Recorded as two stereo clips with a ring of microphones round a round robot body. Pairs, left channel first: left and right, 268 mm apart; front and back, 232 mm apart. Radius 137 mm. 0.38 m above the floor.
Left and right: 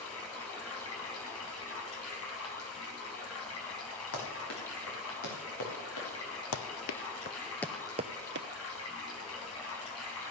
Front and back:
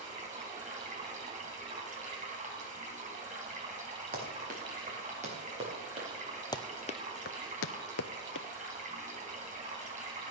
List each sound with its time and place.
0.0 s running water: 125° left, 3.5 m
4.1 s running footsteps: 130° left, 5 m; by 6.1 s 110° left, 5.5 m
6.5 s running footsteps: 75° left, 0.8 m; by 8.5 s 45° right, 0.7 m